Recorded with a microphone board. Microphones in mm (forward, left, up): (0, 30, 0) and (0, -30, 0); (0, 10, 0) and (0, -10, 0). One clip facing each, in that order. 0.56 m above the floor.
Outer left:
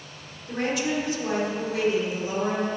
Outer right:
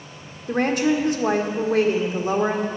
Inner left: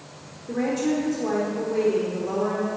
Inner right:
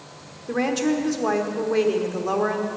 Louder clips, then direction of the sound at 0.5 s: Outer right 6 dB, inner right 2 dB; 50° right (ahead or behind).